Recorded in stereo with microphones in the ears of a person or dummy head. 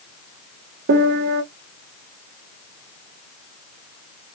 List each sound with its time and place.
0.9 s a piano: 55° right (ahead or behind), 0.7 m